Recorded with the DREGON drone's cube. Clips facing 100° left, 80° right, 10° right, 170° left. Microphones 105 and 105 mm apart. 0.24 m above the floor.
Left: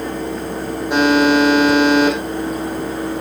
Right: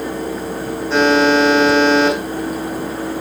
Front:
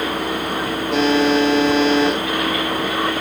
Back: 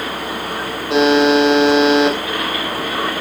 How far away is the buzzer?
About 7 m.